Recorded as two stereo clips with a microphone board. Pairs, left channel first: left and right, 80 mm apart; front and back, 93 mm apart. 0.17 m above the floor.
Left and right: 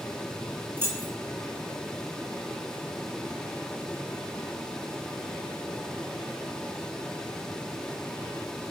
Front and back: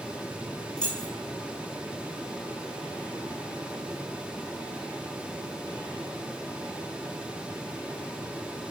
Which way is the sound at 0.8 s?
70° right.